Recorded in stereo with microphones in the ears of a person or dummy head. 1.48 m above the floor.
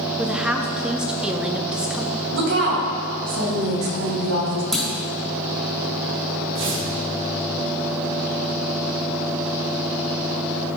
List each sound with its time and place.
0.2 s a woman speaking: 5° right (ahead or behind), 0.7 m
2.3 s a woman speaking: 80° right, 2.5 m
4.7 s a clunk: centre (ahead or behind), 1.0 m
6.5 s tearing paper: 65° right (ahead or behind), 2.5 m